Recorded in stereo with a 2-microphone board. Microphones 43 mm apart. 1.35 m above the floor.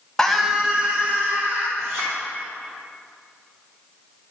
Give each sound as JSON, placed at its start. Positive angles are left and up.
{"t": 0.2, "sound": "a scream", "side_deg": 10, "distance_m": 0.8}
{"t": 1.8, "sound": "a clink", "side_deg": -60, "distance_m": 3.0}